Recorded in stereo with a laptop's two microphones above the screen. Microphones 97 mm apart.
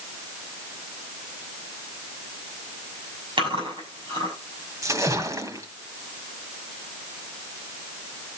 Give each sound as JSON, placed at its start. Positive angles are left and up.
{"t": 3.4, "sound": "chewing", "side_deg": -60, "distance_m": 6.5}
{"t": 4.8, "sound": "a splash", "side_deg": -35, "distance_m": 1.4}